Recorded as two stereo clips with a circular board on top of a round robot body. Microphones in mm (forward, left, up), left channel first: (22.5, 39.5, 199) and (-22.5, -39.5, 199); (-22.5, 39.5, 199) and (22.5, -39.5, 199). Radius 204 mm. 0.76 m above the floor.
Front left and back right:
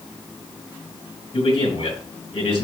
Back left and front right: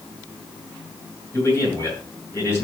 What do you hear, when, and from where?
1.3 s a man speaking: 60° left, 7 m